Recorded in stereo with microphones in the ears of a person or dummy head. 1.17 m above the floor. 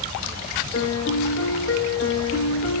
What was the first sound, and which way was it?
A piano, 60° left (ahead or behind).